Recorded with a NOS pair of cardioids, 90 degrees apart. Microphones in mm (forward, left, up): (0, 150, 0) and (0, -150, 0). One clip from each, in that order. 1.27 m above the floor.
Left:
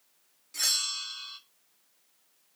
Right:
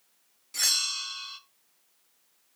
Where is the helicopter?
I don't hear a helicopter.